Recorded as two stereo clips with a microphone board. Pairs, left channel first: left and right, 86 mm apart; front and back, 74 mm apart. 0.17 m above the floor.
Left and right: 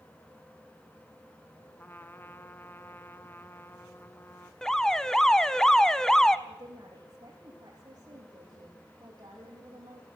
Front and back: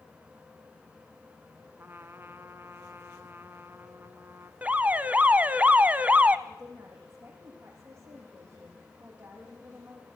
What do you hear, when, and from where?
1.8 s a trumpet: 140° left, 1.2 m
4.6 s an alarm: 165° left, 0.8 m
6.5 s a woman speaking: 130° right, 9 m